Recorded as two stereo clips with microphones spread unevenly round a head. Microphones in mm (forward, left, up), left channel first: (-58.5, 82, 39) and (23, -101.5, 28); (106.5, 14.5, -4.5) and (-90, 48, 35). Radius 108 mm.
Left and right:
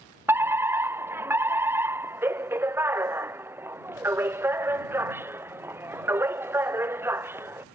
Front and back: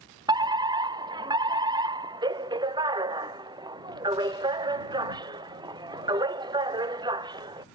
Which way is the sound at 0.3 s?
120° right.